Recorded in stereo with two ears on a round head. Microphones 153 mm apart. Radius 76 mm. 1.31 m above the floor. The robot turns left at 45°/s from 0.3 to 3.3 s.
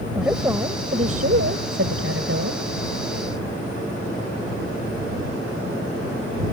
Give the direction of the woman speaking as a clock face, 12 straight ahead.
12 o'clock.